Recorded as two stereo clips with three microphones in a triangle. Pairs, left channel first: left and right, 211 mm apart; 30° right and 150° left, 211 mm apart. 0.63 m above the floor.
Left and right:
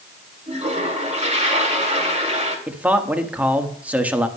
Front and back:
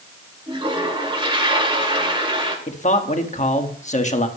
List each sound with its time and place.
0.5 s a toilet flushing: 145° right, 2 m
2.7 s a man speaking: 10° right, 1.1 m